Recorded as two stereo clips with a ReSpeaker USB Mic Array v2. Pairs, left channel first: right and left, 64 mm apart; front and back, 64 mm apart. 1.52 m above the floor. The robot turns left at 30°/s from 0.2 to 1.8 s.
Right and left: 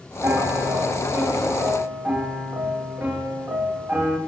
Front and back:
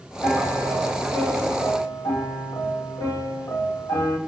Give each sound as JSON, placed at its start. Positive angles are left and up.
{"t": 0.2, "sound": "a piano", "azimuth_deg": 60, "distance_m": 3.0}